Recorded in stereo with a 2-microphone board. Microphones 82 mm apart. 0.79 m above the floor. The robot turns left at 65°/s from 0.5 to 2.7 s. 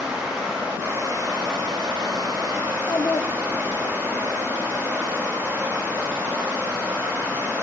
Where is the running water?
5° right, 4.5 m; by 7.6 s 150° right, 4.5 m.